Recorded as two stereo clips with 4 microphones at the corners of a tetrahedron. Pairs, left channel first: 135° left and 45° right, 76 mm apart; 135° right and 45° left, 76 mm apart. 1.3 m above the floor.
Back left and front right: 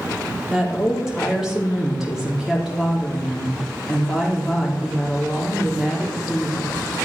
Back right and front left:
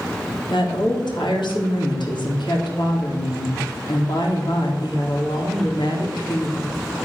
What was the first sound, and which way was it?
A woman speaking, 130° right.